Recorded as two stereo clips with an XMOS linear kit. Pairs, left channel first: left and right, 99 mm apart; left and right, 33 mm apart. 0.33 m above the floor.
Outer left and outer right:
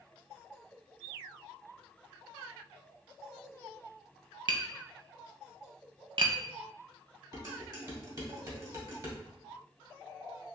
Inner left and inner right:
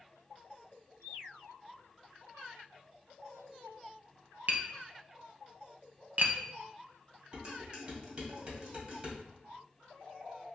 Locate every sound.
4.5 s tapping: 55° right (ahead or behind), 0.6 m
7.3 s dishes clattering: 40° right (ahead or behind), 1.4 m